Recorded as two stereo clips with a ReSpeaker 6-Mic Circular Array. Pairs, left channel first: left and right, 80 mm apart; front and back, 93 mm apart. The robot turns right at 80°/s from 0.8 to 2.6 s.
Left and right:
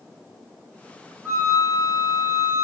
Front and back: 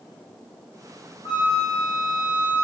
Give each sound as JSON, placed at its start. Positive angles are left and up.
{"t": 1.2, "sound": "a flute", "azimuth_deg": -30, "distance_m": 1.2}